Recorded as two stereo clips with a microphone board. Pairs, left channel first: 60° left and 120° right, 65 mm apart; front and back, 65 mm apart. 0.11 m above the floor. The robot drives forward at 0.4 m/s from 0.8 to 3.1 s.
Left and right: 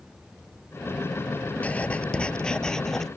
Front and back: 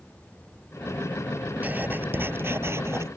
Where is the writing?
120° left; by 3.1 s 145° left.